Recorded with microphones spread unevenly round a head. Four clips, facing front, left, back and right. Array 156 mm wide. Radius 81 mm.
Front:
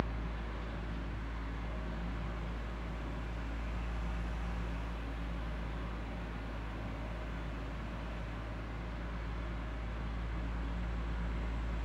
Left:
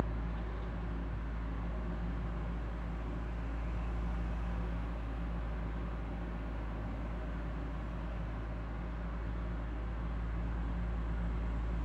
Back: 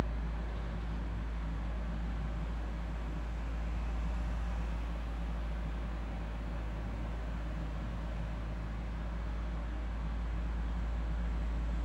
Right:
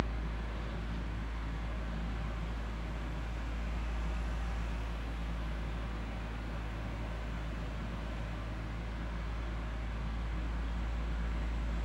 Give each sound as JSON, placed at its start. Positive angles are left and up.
{"t": 0.0, "sound": "a fan", "azimuth_deg": -65, "distance_m": 0.8}